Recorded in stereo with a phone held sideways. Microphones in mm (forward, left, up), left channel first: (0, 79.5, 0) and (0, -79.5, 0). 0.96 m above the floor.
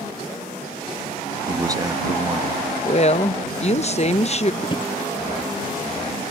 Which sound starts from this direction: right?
A man speaking, at 1.5 s.